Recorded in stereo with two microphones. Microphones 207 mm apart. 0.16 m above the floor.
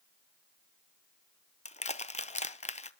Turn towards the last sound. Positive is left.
turn(degrees=35)  # may be behind; listen again after turning